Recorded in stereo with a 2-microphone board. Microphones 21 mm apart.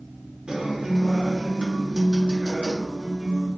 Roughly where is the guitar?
Right.